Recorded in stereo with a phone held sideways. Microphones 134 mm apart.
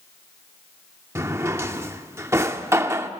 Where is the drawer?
20° right (ahead or behind), 1.0 m.